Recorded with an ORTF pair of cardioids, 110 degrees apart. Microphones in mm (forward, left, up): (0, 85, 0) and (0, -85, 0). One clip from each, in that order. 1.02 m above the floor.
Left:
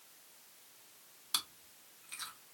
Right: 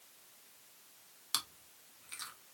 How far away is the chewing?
About 1.2 m.